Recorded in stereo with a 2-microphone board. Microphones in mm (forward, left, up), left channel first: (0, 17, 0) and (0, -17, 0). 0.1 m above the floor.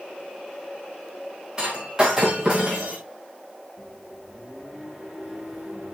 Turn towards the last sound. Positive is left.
turn(degrees=-5)  # may be behind; listen again after turning